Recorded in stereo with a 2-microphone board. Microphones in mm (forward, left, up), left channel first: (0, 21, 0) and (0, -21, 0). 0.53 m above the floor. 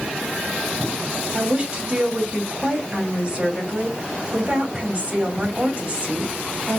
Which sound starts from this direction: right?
A woman speaking, at 1.3 s.